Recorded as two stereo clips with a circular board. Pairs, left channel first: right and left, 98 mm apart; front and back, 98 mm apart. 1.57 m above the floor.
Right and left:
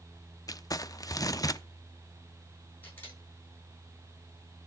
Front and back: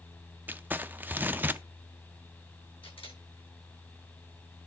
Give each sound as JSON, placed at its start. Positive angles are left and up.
{"t": 0.5, "sound": "crumpling", "azimuth_deg": -120, "distance_m": 0.5}
{"t": 2.8, "sound": "a camera shutter", "azimuth_deg": -20, "distance_m": 7.0}